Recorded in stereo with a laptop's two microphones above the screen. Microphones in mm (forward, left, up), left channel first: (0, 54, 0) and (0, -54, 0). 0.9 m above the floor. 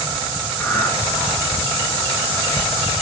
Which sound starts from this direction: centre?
Breathing, at 0.6 s.